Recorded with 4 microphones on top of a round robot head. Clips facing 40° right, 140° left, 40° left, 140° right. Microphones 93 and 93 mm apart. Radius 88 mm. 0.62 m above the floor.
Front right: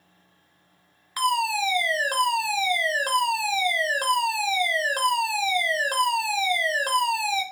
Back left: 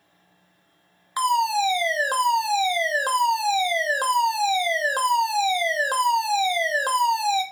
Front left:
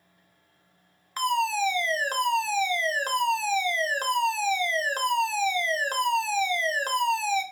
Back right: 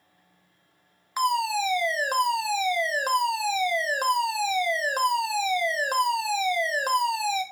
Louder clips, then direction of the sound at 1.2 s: Back left 3 dB, back right 1 dB; 160° left.